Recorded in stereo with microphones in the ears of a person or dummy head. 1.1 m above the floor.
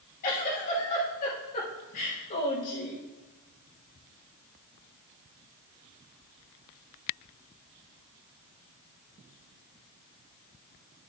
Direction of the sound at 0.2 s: 45° left (ahead or behind).